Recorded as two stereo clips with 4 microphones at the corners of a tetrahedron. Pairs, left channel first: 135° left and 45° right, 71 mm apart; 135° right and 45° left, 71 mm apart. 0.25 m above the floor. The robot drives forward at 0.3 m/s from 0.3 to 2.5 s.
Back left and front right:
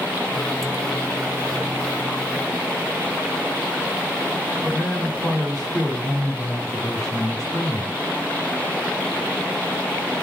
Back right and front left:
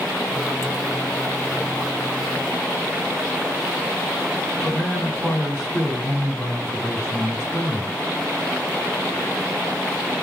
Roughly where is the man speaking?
Behind left.